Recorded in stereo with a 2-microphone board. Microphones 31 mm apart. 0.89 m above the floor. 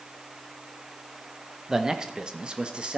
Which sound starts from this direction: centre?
A man speaking, at 1.7 s.